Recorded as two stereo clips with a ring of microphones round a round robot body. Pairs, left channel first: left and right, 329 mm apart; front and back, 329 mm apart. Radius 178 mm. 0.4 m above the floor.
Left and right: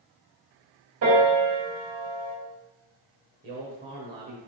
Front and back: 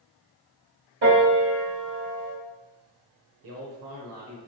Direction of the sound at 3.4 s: 145° right.